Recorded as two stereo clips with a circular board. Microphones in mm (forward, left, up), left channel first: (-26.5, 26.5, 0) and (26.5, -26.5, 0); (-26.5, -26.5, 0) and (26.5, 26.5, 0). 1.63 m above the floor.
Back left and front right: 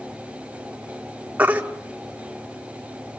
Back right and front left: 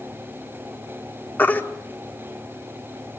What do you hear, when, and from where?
1.4 s a baby crying: 90° right, 1.3 m